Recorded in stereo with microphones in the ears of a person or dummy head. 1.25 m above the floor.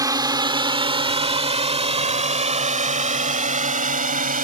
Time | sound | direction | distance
0.0 | a drone | 15° right (ahead or behind) | ?